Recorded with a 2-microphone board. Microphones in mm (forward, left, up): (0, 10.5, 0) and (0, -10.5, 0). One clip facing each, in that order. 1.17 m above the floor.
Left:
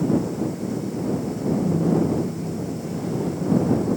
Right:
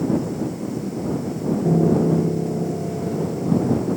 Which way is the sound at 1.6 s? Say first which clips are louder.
Right 5 dB; 65° right (ahead or behind).